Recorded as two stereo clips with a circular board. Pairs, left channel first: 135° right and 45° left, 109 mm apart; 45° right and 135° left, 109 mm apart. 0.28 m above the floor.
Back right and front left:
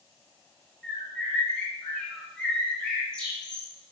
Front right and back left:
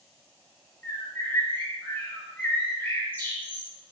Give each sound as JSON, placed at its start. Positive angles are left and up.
{"t": 0.8, "sound": "a bird", "azimuth_deg": -65, "distance_m": 0.8}